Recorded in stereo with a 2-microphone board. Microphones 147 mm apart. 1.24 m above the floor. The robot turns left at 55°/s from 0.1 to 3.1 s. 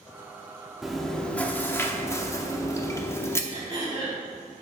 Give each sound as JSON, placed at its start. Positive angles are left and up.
{"t": 0.8, "sound": "chewing", "side_deg": 0, "distance_m": 0.8}
{"t": 3.5, "sound": "throat clearing", "side_deg": -30, "distance_m": 3.0}